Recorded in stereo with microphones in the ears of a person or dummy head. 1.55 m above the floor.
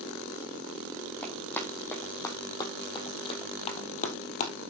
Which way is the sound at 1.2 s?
10° left (ahead or behind).